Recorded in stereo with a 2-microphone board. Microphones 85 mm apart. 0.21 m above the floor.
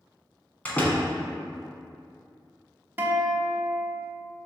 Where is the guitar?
25° right (ahead or behind), 0.7 m.